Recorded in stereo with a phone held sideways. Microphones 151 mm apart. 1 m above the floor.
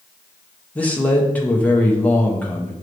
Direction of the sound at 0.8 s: 10° left (ahead or behind).